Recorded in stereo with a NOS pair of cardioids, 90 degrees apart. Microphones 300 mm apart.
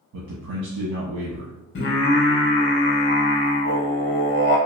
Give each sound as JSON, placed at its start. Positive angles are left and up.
{"t": 0.1, "sound": "a man speaking", "azimuth_deg": -60, "distance_m": 0.9}
{"t": 1.8, "sound": "singing", "azimuth_deg": 40, "distance_m": 0.6}